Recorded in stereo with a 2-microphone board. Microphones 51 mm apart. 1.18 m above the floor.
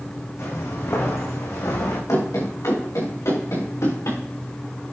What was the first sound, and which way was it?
Footsteps, 65° left (ahead or behind).